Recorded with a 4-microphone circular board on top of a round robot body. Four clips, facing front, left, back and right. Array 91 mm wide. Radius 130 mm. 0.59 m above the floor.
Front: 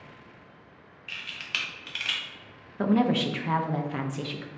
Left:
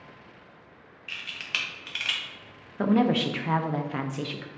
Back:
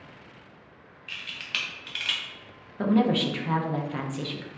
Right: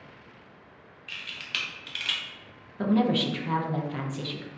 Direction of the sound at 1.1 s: 75° left.